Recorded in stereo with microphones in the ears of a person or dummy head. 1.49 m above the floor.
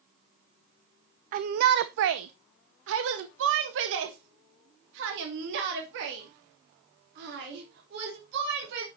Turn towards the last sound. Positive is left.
turn(degrees=-65)  # may be behind; listen again after turning